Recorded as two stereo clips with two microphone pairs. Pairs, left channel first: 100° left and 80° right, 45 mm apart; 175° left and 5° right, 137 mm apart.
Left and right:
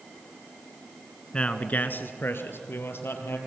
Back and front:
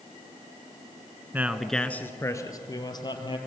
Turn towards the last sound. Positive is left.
turn(degrees=120)